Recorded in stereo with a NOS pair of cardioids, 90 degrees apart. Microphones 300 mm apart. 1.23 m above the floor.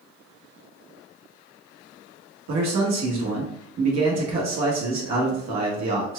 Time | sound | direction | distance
2.5 | a man speaking | 60° right | 1.4 m